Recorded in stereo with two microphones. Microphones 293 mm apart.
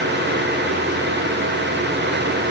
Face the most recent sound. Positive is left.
No sound to turn to.